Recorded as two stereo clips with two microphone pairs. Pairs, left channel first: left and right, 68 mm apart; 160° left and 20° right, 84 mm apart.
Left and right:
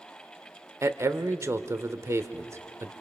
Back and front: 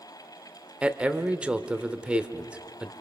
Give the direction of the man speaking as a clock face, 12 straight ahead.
3 o'clock.